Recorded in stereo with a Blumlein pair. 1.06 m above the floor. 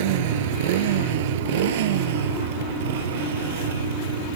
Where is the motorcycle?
50° right; by 4.4 s 60° right.